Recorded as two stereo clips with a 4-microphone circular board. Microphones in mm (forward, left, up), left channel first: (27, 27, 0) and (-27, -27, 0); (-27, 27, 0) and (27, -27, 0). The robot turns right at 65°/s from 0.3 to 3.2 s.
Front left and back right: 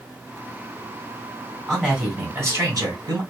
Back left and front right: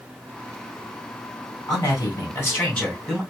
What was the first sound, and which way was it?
A man speaking, 140° left.